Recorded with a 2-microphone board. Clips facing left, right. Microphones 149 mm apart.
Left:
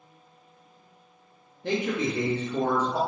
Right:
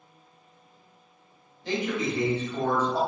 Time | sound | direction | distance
1.6 | a man speaking | 60° left (ahead or behind) | 1.0 m